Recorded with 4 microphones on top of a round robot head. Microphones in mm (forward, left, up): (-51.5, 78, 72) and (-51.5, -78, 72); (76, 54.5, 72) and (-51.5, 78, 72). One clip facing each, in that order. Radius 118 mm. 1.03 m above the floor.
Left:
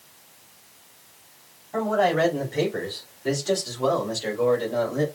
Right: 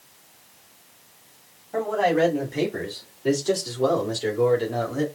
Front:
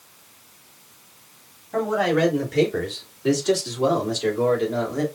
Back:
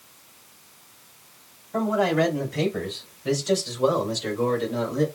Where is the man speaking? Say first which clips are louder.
Even, front 1 dB; 10° right, 3 m; by 5.0 s 45° right, 2.5 m.